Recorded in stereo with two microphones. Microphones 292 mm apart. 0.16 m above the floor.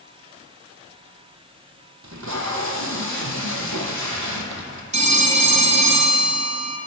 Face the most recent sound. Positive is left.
turn(degrees=-25)  # may be behind; listen again after turning